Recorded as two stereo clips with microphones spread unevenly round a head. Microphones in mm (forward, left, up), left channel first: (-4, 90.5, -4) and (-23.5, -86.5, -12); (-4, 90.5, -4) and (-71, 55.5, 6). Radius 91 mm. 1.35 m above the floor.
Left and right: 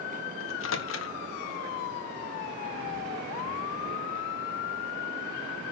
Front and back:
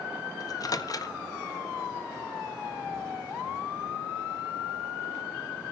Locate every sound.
0.4 s a microwave: 65° left, 1.4 m